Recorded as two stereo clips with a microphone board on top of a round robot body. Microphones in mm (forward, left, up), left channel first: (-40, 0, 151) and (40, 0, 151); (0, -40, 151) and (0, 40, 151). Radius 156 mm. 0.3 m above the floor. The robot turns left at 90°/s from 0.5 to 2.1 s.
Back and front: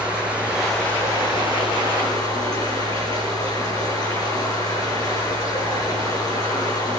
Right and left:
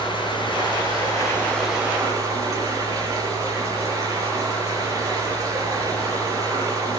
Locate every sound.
0.0 s running water: 80° right, 7 m; by 7.0 s 140° left, 7 m